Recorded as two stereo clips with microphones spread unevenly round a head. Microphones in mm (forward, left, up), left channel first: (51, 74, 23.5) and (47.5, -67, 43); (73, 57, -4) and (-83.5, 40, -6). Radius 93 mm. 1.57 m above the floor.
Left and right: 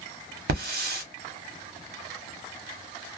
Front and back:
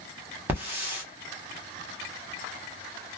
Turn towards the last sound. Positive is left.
turn(degrees=-95)